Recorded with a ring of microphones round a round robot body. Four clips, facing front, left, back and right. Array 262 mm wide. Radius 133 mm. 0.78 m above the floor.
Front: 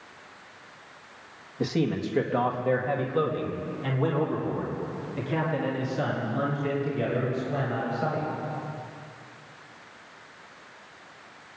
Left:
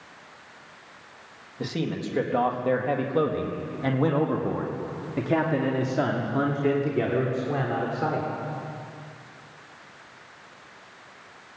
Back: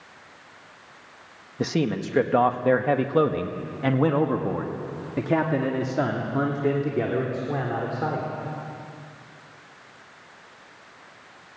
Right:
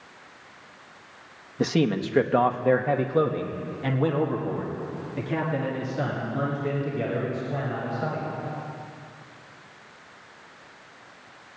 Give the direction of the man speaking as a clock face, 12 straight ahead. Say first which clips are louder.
Right 6 dB, back 2 dB; 4 o'clock.